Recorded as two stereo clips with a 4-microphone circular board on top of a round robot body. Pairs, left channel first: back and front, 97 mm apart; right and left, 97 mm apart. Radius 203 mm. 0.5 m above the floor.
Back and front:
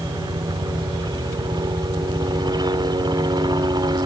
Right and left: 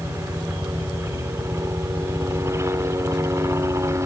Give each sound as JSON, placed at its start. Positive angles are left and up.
{"t": 0.0, "sound": "a helicopter", "azimuth_deg": 30}